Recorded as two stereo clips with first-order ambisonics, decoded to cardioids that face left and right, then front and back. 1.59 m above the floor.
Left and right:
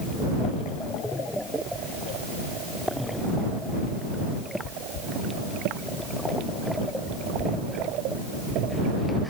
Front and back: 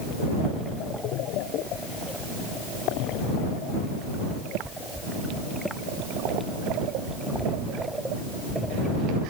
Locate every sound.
Only background noise.